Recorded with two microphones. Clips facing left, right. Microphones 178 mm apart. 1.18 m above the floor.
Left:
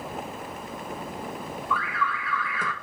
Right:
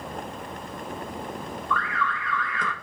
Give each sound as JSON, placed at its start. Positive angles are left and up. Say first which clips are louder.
{"t": 1.7, "sound": "an alarm", "louder": "right 1 dB", "side_deg": 10, "distance_m": 1.5}